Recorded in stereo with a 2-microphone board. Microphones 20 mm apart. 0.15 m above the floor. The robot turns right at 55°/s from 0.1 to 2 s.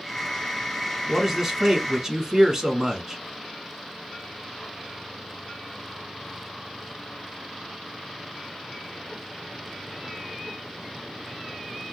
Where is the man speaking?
10° right (ahead or behind), 1.1 m; by 3.2 s 25° right (ahead or behind), 1.1 m.